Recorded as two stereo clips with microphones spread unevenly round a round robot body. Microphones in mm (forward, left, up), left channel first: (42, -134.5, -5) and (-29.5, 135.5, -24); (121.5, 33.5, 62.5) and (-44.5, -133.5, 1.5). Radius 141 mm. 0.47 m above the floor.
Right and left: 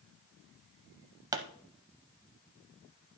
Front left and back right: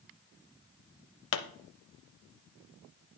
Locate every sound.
1.3 s a pop: 25° left, 0.5 m